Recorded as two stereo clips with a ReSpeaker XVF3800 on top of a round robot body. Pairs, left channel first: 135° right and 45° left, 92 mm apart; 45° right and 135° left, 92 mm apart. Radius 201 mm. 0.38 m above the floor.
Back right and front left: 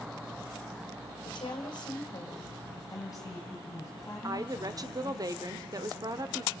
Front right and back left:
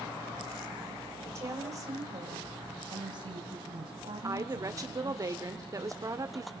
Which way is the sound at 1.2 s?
170° right.